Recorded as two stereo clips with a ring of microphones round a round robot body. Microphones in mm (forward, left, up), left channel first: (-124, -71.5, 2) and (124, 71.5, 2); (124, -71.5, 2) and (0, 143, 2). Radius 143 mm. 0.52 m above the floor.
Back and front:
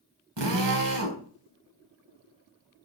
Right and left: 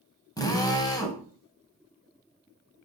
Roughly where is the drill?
Ahead.